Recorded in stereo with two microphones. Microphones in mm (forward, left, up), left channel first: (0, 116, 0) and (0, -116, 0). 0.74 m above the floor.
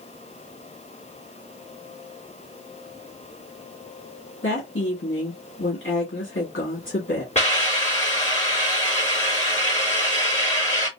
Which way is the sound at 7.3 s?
30° left (ahead or behind).